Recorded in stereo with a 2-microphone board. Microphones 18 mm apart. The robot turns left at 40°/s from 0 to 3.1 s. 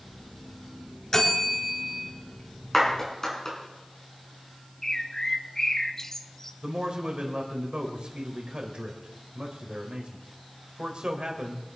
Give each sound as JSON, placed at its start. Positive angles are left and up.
{"t": 1.1, "sound": "a bell", "azimuth_deg": 45, "distance_m": 4.0}
{"t": 2.7, "sound": "a clap", "side_deg": 10, "distance_m": 5.5}
{"t": 4.8, "sound": "a bird", "side_deg": 30, "distance_m": 0.8}
{"t": 6.6, "sound": "a man speaking", "side_deg": -70, "distance_m": 3.5}